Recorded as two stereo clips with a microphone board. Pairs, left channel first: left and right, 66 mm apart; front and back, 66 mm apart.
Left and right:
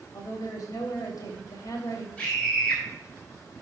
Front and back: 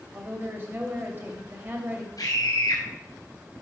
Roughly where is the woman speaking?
Behind left.